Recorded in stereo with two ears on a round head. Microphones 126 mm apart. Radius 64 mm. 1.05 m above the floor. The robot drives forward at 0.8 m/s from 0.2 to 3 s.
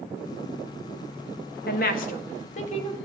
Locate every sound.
1.7 s a woman speaking: 75° left (ahead or behind), 1.3 m; by 3.0 s 45° left (ahead or behind), 1.8 m